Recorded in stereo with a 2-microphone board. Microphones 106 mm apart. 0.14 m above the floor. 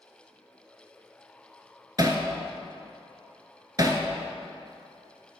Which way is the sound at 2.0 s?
40° right (ahead or behind).